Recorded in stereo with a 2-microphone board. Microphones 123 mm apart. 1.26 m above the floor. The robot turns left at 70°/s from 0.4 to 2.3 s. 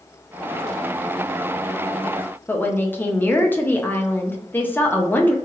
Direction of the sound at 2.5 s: 15° left (ahead or behind).